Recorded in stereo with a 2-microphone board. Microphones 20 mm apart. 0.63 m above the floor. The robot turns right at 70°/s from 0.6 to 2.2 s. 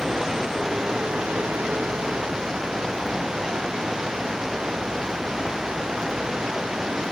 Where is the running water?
155° right; by 7.1 s 45° right.